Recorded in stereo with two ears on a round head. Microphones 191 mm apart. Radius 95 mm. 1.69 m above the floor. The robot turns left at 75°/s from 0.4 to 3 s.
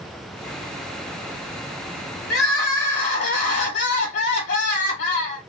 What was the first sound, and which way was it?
Crying, 115° left.